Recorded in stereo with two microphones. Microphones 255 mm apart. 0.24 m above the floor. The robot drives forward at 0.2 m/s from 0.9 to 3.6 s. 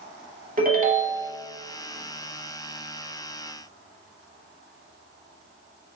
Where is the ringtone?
35° right (ahead or behind), 0.6 m; by 1.3 s 40° right (ahead or behind), 0.6 m.